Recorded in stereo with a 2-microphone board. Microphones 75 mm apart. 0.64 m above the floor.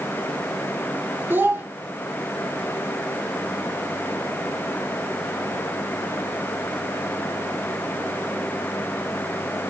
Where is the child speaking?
30° right (ahead or behind), 1.9 m.